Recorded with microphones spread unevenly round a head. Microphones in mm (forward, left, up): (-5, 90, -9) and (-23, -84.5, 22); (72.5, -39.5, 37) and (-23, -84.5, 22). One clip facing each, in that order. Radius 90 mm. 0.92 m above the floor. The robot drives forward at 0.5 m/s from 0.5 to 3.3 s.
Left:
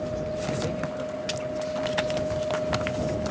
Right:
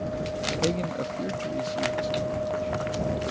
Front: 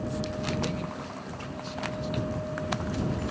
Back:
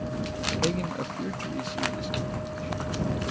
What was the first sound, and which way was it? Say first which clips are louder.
A man speaking: right 2 dB, back 5 dB; 125° right.